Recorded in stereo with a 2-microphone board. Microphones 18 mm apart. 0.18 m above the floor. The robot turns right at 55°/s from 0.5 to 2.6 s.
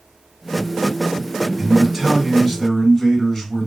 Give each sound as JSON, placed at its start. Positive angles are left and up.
{"t": 1.6, "sound": "a man speaking", "azimuth_deg": -10, "distance_m": 1.8}